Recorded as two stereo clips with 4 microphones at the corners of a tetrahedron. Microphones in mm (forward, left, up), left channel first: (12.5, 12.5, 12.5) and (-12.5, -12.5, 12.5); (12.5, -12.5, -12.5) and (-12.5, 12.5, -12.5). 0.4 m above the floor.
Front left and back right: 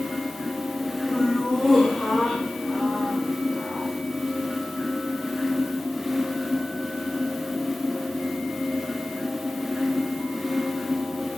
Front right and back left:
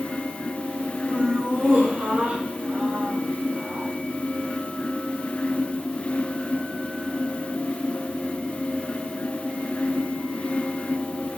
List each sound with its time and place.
1.1 s laughter: 110° left, 1.6 m